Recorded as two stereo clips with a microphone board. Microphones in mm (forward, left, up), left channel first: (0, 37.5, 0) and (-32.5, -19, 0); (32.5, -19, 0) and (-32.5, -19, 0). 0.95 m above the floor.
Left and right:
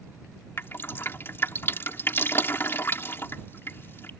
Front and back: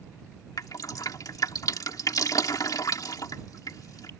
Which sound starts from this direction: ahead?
Dripping, at 0.6 s.